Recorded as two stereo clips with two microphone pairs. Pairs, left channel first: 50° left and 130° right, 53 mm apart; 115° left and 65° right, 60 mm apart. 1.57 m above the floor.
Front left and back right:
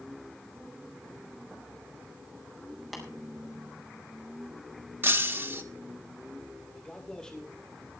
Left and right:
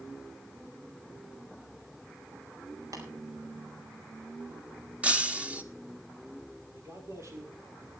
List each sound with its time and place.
2.9 s tapping: 40° right, 5 m
5.0 s breaking glass: 125° right, 1.3 m
6.7 s a man speaking: 30° right, 6 m